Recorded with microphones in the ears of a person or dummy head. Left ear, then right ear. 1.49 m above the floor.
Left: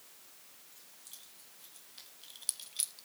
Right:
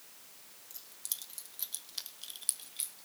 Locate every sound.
0.7 s keys jangling: 75° right (ahead or behind), 2.5 m; by 3.1 s 30° left (ahead or behind), 1.5 m